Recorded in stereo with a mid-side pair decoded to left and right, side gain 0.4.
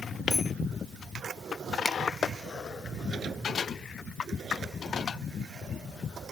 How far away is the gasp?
No gasp in this recording.